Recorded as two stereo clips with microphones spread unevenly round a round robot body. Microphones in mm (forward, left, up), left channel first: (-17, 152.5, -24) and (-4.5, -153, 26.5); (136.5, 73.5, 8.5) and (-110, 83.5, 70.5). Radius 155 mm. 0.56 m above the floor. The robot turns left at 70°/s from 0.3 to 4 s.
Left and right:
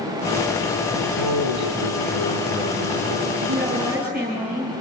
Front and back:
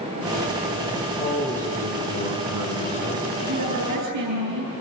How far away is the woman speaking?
About 9.5 m.